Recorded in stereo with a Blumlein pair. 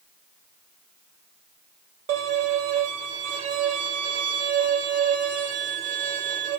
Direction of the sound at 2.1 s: 45° right.